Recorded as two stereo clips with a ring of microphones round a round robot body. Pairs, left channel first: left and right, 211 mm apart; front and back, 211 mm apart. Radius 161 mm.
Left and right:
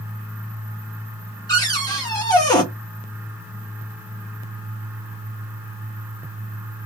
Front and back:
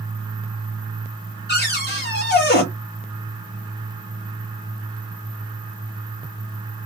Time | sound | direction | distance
1.5 | a cupboard door | 20° left | 1.7 m